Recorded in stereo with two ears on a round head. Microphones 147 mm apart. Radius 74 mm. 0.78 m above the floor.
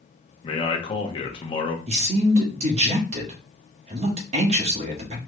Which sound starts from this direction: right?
A man speaking, at 1.9 s.